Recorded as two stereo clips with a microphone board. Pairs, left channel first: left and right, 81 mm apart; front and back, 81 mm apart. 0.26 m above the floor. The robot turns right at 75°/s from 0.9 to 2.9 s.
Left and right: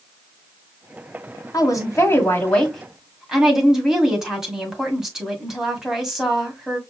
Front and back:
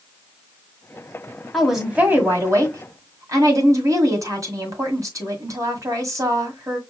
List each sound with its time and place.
1.5 s a woman speaking: 85° left, 1.8 m; by 6.8 s 170° right, 1.8 m